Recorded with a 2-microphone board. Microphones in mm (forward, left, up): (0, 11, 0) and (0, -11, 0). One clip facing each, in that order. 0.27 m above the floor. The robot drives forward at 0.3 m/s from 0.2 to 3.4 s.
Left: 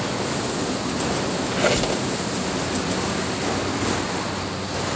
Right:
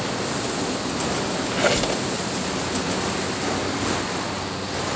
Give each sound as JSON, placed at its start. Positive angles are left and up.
{"t": 1.5, "sound": "a squeak", "side_deg": -5, "distance_m": 0.7}